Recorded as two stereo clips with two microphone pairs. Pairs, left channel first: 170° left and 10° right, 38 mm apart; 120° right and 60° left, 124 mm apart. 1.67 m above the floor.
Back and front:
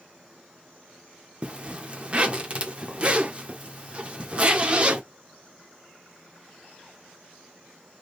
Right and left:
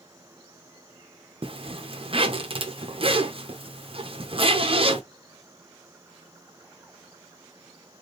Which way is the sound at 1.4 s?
35° left.